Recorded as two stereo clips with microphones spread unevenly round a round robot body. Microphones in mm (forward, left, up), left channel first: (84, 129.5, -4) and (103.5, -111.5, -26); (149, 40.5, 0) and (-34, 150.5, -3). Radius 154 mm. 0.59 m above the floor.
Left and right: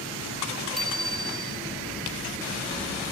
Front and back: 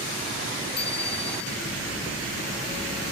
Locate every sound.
0.8 s a bicycle bell: 5° left